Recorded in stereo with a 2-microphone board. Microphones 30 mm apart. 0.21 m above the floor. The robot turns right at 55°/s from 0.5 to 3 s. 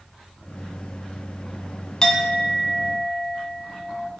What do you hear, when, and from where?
2.0 s a clink: 45° left, 0.8 m; by 4.1 s 100° left, 0.8 m